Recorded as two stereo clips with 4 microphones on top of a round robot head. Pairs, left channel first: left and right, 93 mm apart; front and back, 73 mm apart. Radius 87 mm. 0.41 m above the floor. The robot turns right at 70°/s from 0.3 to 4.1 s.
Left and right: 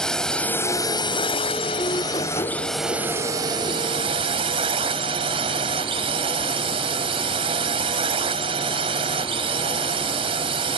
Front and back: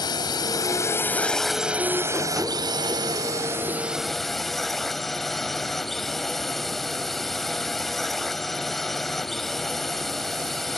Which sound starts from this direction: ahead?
A drone, at 0.0 s.